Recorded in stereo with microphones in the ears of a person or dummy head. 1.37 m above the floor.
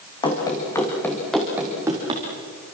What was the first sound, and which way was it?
Running footsteps, 25° left (ahead or behind).